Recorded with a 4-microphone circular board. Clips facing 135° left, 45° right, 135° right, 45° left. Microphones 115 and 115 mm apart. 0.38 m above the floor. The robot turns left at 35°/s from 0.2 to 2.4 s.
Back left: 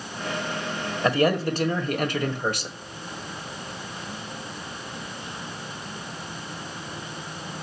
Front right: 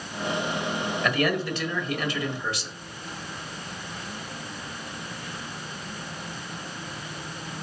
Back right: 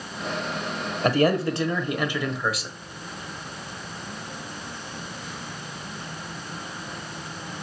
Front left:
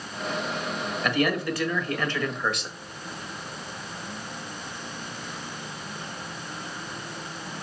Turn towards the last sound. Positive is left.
turn(degrees=140)